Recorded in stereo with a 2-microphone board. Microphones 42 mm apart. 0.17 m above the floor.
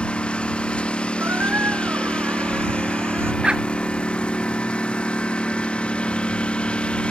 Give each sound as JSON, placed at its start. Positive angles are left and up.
{"t": 0.0, "sound": "a lawn mower", "side_deg": 25}
{"t": 1.2, "sound": "a squeak", "side_deg": -60}
{"t": 3.4, "sound": "a dog barking", "side_deg": -25}